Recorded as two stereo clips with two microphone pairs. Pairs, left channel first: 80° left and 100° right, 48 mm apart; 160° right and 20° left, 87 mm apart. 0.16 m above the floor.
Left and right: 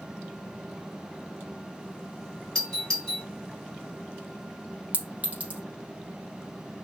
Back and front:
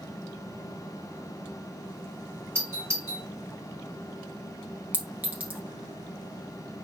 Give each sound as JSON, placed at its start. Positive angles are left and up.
{"t": 2.5, "sound": "a doorbell", "azimuth_deg": 10, "distance_m": 1.9}
{"t": 4.9, "sound": "a clink", "azimuth_deg": -45, "distance_m": 1.1}